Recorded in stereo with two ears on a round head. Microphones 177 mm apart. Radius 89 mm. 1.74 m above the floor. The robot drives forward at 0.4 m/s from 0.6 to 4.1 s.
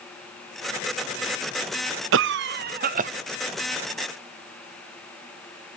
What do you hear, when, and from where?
2.1 s a cough: 70° right (ahead or behind), 0.5 m; by 3.1 s 40° right (ahead or behind), 0.8 m